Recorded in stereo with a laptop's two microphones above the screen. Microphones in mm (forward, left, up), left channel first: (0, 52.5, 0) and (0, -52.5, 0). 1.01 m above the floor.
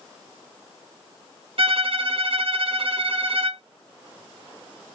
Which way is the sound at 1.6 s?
60° right (ahead or behind).